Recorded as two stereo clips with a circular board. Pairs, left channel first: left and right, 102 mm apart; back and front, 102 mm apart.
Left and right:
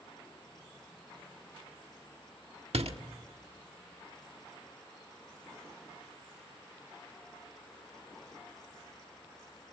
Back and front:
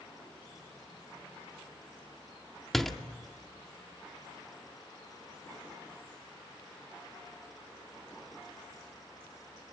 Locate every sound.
2.7 s a door slam: 90° right, 1.3 m